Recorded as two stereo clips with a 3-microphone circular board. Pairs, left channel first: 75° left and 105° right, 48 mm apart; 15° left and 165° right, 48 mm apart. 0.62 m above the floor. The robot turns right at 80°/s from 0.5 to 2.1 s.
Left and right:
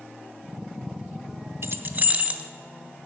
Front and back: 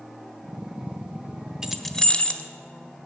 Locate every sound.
1.6 s keys jangling: 85° right, 0.7 m; by 2.4 s 45° right, 0.7 m